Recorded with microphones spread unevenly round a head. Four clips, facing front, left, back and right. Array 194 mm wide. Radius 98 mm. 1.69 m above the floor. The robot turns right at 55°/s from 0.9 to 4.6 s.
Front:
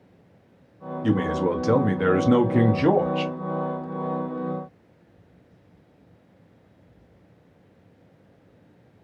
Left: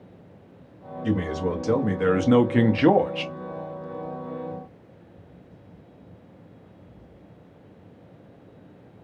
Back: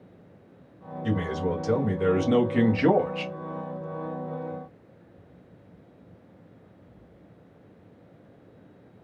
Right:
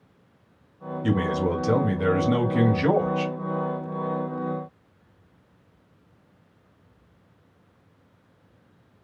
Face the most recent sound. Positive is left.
turn(degrees=165)